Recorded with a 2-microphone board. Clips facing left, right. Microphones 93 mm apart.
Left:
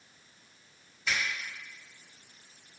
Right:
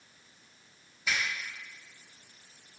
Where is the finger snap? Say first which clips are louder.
Even; 5° right (ahead or behind), 1.1 m.